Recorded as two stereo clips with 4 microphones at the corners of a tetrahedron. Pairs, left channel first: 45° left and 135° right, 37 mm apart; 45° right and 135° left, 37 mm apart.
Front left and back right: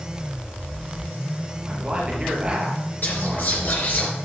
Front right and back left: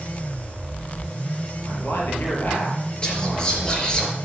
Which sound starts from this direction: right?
A man speaking, at 1.6 s.